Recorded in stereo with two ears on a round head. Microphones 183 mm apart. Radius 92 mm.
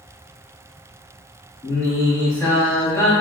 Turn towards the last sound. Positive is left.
turn(degrees=15)  # may be behind; listen again after turning